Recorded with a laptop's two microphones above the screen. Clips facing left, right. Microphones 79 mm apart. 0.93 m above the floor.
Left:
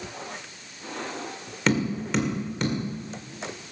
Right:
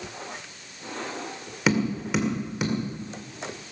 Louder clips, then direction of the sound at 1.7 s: Even; 5° right (ahead or behind).